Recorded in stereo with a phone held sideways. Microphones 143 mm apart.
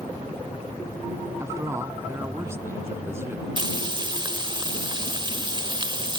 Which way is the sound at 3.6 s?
35° right (ahead or behind).